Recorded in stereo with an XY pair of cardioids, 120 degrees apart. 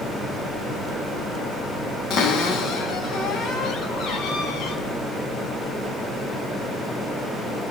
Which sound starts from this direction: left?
A cupboard door, at 2.1 s.